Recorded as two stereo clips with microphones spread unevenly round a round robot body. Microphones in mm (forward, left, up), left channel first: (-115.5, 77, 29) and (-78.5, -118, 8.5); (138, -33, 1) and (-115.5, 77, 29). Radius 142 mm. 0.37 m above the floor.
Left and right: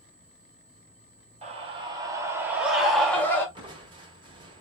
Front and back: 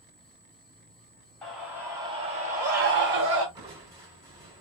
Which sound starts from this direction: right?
A scream, at 1.4 s.